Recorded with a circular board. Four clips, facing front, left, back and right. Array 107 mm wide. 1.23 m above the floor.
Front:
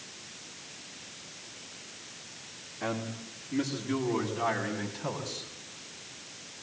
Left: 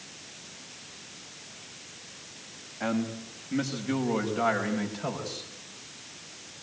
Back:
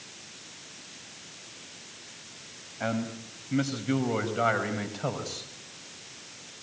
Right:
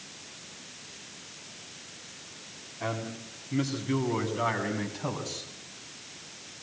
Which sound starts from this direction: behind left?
A man speaking, at 2.8 s.